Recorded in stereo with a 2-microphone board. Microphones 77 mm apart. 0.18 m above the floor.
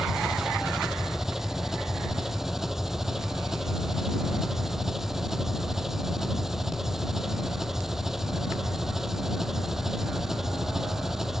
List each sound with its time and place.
0.0 s an engine running: 5° right (ahead or behind)